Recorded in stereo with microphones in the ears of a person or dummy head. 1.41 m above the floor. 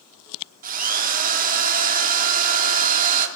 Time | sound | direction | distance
0.6 | a drill | 45° right (ahead or behind) | 3 m